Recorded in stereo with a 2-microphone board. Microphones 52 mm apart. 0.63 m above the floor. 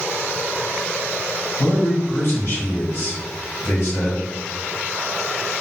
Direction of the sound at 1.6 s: 55° left (ahead or behind).